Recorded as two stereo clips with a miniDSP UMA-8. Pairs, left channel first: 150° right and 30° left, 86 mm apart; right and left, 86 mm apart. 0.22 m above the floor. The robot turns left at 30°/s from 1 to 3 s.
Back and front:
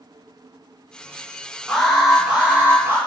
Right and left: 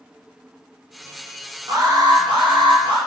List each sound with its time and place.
1.7 s an alarm: 130° left, 4 m; by 3.0 s 90° left, 4 m